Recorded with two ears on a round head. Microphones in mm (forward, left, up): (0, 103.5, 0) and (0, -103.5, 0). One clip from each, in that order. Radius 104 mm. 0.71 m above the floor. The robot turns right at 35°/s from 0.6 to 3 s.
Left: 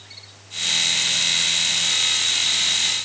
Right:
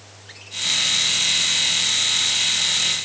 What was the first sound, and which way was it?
Only background noise.